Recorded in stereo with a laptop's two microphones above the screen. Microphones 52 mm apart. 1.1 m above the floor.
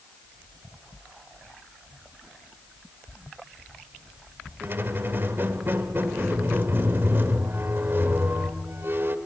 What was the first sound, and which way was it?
A squeak, 45° right (ahead or behind).